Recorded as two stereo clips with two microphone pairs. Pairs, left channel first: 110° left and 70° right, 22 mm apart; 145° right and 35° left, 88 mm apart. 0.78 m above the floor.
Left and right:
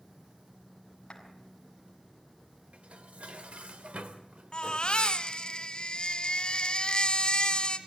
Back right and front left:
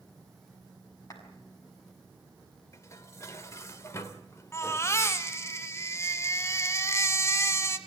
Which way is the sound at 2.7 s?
85° right.